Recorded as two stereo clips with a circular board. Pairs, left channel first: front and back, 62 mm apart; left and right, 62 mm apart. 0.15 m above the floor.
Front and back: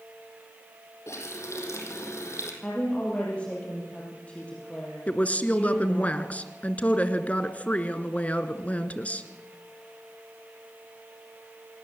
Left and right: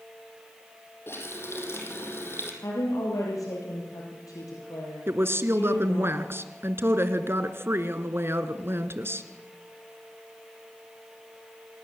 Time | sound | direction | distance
1.1 | a running tap | 40° left | 4 m
2.6 | a woman speaking | 70° left | 5 m
5.1 | a woman speaking | 60° right | 1.8 m